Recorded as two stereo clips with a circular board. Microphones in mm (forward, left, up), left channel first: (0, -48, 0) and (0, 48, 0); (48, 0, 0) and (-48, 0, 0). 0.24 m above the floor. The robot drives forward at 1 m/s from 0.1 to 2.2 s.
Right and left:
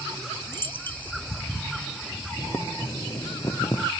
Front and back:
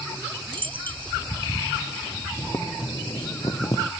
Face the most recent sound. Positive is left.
turn(degrees=-45)